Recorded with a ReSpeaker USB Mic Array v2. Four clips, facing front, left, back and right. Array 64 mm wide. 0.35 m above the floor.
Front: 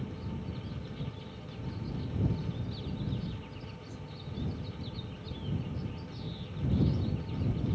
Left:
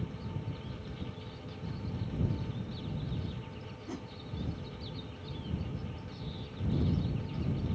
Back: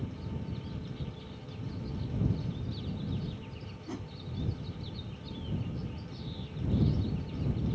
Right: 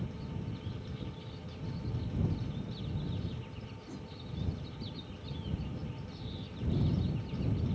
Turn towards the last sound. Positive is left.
turn(degrees=140)